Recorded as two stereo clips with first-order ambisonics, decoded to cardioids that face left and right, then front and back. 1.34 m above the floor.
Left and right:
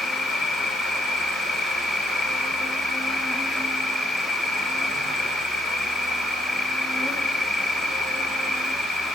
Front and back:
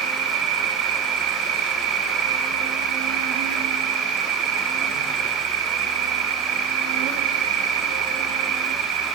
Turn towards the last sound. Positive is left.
turn(degrees=-175)